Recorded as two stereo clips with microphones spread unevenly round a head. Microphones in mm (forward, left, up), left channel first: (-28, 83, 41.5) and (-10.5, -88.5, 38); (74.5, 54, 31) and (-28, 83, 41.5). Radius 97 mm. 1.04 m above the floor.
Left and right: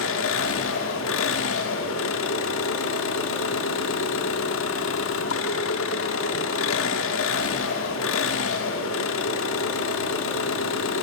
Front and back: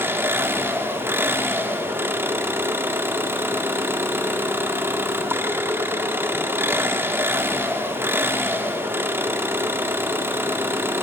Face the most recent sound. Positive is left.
turn(degrees=95)